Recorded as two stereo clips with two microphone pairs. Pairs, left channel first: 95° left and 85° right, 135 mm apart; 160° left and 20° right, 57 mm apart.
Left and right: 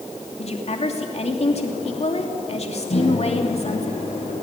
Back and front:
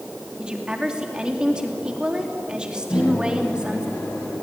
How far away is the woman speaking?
About 3 m.